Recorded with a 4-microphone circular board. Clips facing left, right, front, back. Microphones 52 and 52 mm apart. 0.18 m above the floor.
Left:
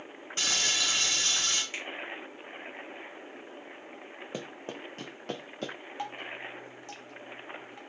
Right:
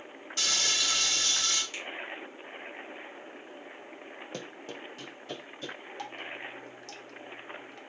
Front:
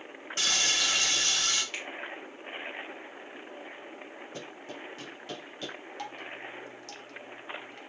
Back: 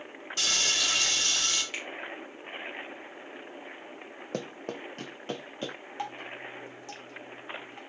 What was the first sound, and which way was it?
Frying, 40° left.